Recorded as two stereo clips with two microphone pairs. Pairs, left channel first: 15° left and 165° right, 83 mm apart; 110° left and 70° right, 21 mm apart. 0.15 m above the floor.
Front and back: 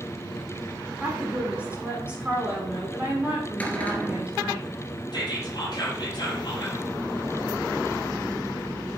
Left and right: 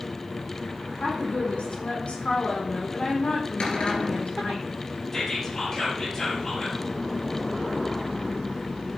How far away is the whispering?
About 5.5 m.